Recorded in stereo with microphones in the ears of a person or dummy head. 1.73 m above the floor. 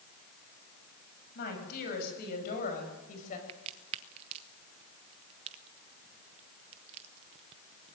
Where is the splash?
I don't hear a splash.